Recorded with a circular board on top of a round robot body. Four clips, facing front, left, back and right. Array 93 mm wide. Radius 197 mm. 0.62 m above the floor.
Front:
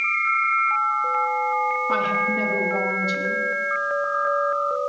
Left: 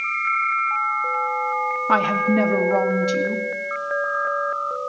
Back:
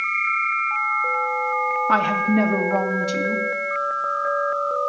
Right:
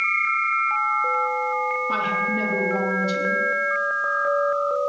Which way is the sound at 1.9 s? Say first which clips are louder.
Left 5 dB, back 4 dB; 130° left.